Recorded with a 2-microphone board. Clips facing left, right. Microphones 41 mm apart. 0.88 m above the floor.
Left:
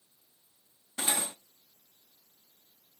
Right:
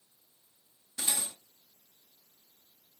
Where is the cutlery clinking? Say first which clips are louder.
Left 4 dB; 40° left (ahead or behind), 0.8 m.